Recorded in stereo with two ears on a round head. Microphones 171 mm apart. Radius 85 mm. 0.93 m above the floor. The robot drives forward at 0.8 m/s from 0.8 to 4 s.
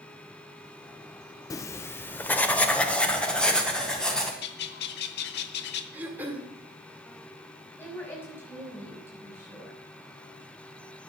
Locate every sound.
1.5 s writing: 20° left (ahead or behind), 0.5 m; by 4.3 s 5° left (ahead or behind), 2.5 m
4.4 s a bird: 60° left (ahead or behind), 1.1 m
5.9 s throat clearing: 10° right (ahead or behind), 2 m
7.8 s a woman speaking: 10° left (ahead or behind), 6 m